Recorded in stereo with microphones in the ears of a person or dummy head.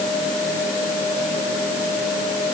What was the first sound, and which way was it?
Only background noise.